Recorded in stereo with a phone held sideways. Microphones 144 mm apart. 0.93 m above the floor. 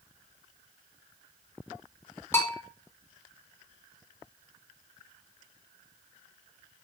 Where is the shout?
I don't hear a shout.